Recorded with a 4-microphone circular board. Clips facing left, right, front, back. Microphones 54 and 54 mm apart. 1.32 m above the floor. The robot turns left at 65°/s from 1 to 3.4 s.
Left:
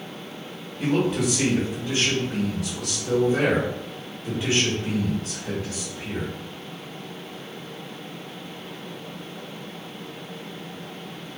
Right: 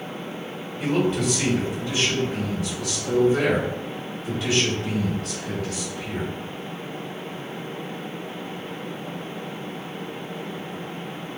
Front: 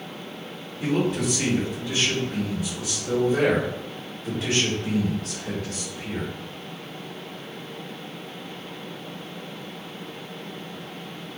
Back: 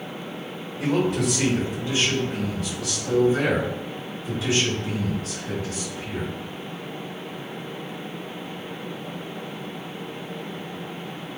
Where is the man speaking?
Straight behind, 1.1 m; by 6.3 s 20° left, 1.1 m.